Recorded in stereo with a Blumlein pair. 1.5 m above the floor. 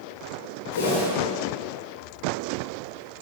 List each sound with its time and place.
0.7 s a whoosh: 60° left, 1.6 m